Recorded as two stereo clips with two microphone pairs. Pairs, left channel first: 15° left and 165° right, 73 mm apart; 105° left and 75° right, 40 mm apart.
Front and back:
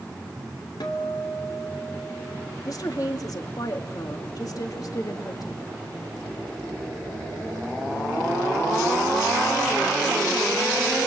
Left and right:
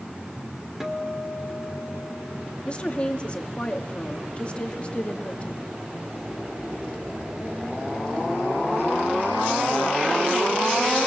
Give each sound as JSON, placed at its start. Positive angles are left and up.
{"t": 0.8, "sound": "a guitar", "azimuth_deg": 10, "distance_m": 3.0}
{"t": 2.6, "sound": "a woman speaking", "azimuth_deg": 50, "distance_m": 2.5}